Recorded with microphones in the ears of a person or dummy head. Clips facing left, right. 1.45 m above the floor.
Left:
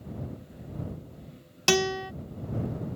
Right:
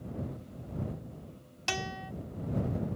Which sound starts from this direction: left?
A guitar, at 1.7 s.